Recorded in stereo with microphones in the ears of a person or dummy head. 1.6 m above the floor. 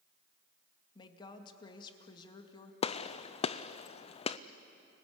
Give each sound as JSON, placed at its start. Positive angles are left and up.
{"t": 0.9, "sound": "a woman speaking", "side_deg": 25, "distance_m": 2.0}
{"t": 2.8, "sound": "a gunshot", "side_deg": 40, "distance_m": 0.5}